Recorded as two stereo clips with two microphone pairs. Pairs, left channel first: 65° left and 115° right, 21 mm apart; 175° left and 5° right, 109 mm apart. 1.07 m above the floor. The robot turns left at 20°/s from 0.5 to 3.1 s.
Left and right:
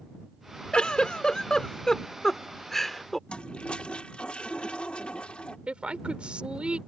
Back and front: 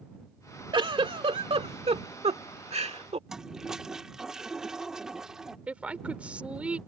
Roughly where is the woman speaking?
Right.